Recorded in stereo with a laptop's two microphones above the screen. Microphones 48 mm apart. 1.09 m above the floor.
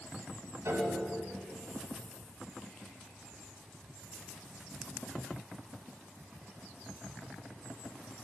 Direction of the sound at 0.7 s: 70° right (ahead or behind).